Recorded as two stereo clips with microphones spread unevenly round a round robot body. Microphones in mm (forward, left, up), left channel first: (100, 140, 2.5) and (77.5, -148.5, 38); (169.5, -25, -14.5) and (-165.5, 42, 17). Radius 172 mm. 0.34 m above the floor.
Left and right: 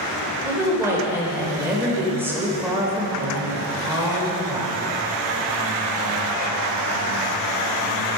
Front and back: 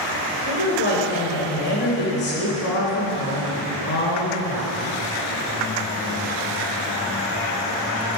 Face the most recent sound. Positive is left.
turn(degrees=-5)